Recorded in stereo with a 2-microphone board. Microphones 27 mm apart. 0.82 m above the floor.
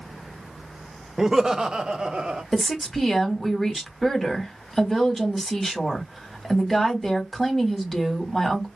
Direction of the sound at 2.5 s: 5° left (ahead or behind).